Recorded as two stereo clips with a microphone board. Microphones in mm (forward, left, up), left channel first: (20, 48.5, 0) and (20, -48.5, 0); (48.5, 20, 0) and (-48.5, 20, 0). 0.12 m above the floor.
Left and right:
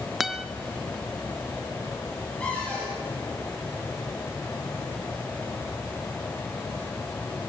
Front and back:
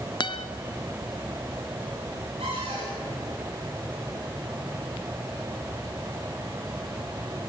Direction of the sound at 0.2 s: 5° right.